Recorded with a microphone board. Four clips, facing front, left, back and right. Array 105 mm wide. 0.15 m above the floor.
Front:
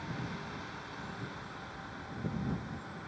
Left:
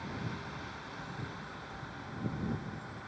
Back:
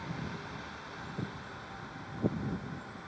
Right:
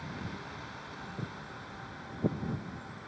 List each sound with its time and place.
1.2 s footsteps: 140° right; by 3.1 s 120° right